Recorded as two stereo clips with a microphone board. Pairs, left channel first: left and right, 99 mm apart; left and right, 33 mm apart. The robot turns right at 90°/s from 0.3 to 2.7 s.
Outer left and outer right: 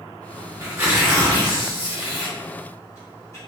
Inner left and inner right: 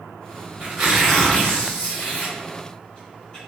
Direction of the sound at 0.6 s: 40° right.